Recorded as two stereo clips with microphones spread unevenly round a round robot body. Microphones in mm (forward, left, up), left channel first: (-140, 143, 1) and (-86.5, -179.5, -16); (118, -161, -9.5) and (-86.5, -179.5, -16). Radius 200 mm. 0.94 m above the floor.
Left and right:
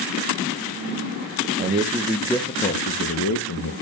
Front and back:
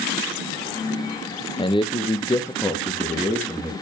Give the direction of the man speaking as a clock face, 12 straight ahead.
1 o'clock.